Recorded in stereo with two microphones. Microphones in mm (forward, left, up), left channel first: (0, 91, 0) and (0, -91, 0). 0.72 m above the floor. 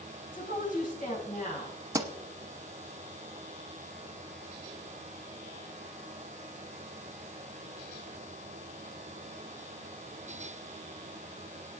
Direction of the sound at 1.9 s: 20° right (ahead or behind).